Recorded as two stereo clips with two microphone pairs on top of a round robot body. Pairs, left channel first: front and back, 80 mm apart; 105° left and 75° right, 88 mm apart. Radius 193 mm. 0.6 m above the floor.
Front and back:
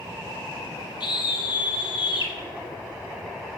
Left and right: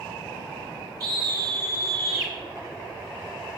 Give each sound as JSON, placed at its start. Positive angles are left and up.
{"t": 1.0, "sound": "a scream", "azimuth_deg": -30, "distance_m": 5.5}